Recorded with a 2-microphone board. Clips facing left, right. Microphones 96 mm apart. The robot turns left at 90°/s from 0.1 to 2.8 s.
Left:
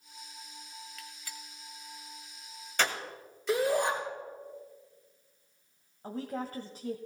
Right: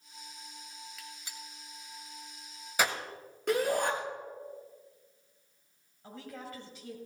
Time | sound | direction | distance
1.0 | a gunshot | centre (ahead or behind) | 1.4 m
3.5 | a shout | 55° right (ahead or behind) | 7 m
6.0 | a woman speaking | 40° left (ahead or behind) | 1.3 m